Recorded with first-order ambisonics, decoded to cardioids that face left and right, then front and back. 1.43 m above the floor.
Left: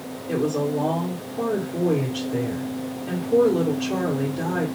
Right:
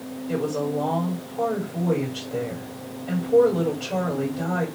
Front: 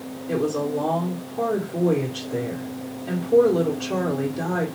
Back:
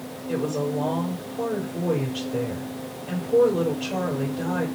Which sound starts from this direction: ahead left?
A woman speaking, at 0.3 s.